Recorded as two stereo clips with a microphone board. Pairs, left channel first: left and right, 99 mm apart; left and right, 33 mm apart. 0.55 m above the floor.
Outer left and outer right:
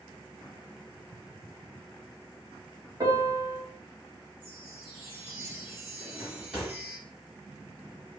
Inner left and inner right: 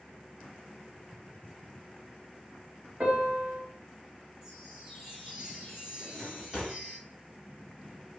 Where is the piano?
40° right (ahead or behind), 1.5 m.